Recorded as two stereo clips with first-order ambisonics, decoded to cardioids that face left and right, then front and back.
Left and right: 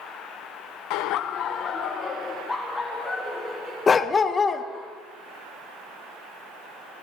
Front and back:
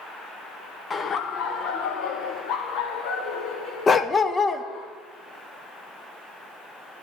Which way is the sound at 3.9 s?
45° left.